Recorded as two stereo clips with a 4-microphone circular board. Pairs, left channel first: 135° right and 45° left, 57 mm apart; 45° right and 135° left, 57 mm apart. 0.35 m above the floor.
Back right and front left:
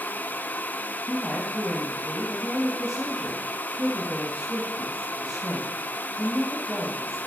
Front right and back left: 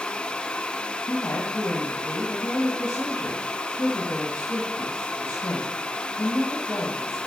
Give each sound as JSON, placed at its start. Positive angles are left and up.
{"t": 1.1, "sound": "a woman speaking", "azimuth_deg": -40, "distance_m": 1.7}